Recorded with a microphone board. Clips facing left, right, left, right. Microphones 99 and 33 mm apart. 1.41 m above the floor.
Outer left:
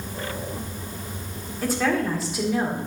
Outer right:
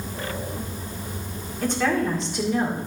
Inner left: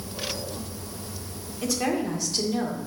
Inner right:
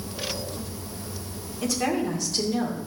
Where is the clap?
I don't hear a clap.